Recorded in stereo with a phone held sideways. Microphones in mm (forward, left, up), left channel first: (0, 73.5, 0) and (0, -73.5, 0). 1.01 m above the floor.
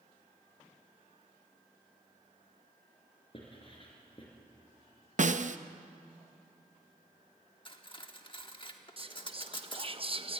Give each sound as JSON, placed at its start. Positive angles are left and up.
{"t": 3.3, "sound": "writing", "side_deg": 35, "distance_m": 4.5}
{"t": 5.2, "sound": "a snare drum", "side_deg": -55, "distance_m": 0.6}
{"t": 7.7, "sound": "cutlery clinking", "side_deg": 35, "distance_m": 1.3}
{"t": 9.0, "sound": "whispering", "side_deg": -40, "distance_m": 0.9}